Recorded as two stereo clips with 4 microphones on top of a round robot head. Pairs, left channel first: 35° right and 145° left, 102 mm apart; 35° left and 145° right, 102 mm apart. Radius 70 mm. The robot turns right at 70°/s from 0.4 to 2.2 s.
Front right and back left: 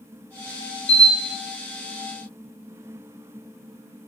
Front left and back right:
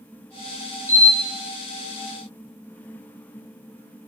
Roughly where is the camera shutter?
Right.